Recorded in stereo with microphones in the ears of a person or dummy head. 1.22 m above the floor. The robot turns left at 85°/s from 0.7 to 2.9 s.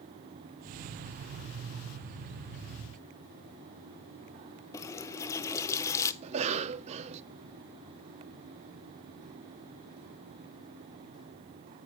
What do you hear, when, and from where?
4.7 s a running tap: 15° left (ahead or behind), 0.6 m
6.2 s a cough: 35° right (ahead or behind), 0.6 m